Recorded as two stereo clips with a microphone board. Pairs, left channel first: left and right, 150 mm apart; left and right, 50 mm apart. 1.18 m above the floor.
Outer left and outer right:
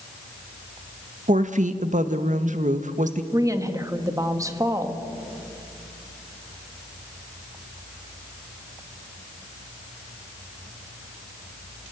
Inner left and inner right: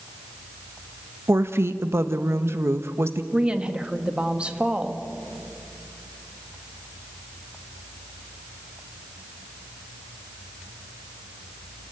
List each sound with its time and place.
1.3 s a woman speaking: 55° right (ahead or behind), 1.2 m
3.3 s a woman speaking: 20° right (ahead or behind), 1.5 m